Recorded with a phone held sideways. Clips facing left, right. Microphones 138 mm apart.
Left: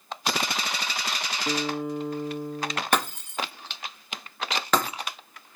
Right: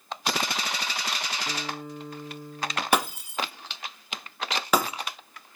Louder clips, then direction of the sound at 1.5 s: Left 7 dB; 65° left (ahead or behind).